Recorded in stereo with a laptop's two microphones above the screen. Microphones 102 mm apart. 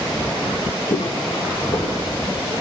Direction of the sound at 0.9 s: 45° left (ahead or behind).